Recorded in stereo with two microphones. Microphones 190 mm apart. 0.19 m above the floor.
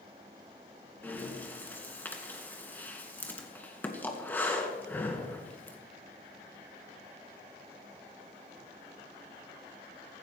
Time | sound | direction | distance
1.0 | breathing | 10° left (ahead or behind) | 2.5 m